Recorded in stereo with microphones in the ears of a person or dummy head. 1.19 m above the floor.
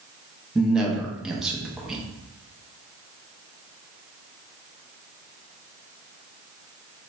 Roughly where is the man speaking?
Centre.